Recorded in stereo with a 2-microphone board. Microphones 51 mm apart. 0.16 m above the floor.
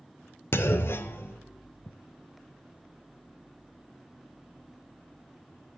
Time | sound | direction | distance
0.5 | a clunk | 55° left (ahead or behind) | 0.6 m